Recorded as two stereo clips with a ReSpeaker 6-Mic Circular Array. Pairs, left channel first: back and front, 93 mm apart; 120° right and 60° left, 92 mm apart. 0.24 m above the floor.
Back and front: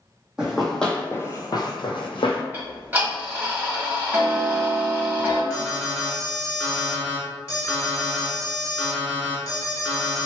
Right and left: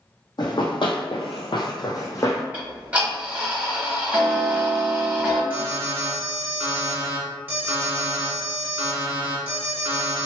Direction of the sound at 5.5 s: 125° left.